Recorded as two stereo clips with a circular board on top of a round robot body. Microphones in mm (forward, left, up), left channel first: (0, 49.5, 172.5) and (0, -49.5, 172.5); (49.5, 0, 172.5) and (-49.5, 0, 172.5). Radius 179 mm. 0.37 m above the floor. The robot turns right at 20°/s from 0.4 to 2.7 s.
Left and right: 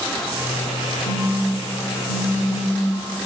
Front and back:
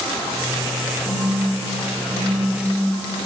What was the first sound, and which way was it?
A phone buzzing, 125° left.